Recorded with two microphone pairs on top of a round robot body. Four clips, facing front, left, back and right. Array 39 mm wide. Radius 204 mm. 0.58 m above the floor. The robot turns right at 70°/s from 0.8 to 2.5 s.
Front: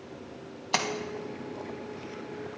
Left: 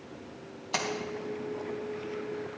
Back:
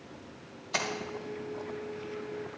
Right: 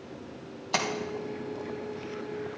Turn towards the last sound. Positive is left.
turn(degrees=115)